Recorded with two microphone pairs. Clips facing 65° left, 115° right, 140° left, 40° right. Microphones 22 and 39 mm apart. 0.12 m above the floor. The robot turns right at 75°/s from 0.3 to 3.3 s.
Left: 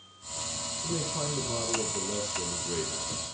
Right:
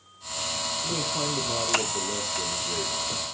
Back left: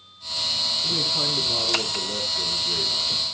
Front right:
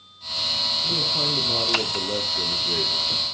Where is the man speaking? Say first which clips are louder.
Right 2 dB, front right 1 dB; 135° right, 3 m; by 3.4 s 50° left, 3 m.